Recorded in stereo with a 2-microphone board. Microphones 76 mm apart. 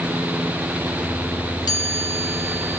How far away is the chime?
About 1.9 m.